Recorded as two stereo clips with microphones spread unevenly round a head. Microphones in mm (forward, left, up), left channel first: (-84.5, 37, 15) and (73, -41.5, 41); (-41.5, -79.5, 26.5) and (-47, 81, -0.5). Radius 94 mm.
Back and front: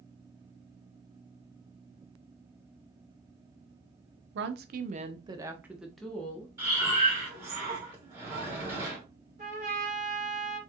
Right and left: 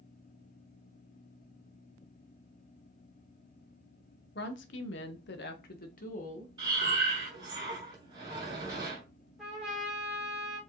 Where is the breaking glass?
I don't hear breaking glass.